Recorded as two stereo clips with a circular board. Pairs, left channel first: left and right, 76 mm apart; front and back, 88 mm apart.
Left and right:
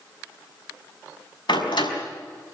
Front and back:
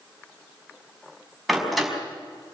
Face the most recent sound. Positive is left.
turn(degrees=90)